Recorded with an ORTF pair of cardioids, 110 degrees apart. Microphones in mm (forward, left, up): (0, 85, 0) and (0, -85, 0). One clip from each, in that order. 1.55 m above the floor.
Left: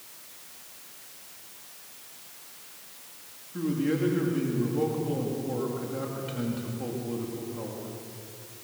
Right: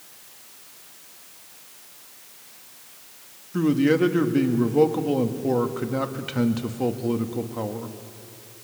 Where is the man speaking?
60° right, 2 m.